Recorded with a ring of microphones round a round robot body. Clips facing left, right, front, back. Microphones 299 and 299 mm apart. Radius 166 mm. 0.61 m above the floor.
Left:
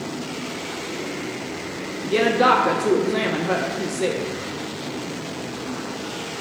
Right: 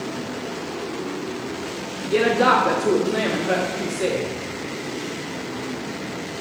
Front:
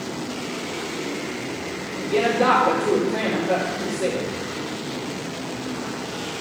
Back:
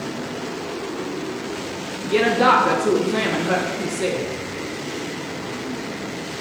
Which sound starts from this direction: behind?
A woman speaking, at 2.0 s.